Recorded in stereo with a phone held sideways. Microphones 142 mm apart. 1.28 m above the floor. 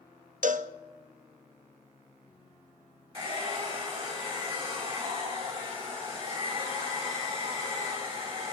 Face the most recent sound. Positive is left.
turn(degrees=-40)  # may be behind; listen again after turning